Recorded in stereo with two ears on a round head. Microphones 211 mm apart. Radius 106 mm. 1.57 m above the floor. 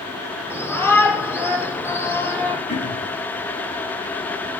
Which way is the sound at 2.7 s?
45° left (ahead or behind).